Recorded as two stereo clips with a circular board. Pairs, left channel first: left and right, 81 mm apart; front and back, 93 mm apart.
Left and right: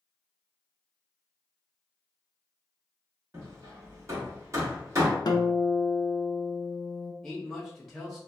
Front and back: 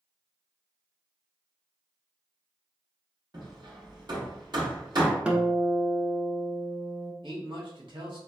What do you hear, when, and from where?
3.3 s hammering: 140° right, 1.0 m
5.2 s a guitar: 105° left, 0.5 m
7.2 s a man speaking: 175° left, 1.2 m